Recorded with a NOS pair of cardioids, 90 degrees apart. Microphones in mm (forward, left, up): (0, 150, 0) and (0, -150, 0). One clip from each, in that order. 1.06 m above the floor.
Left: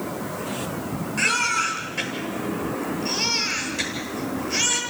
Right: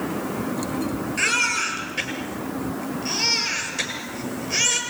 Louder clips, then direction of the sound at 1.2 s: Even; 15° right.